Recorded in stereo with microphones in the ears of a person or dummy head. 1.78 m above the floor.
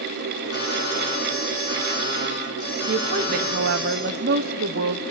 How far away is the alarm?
About 8 m.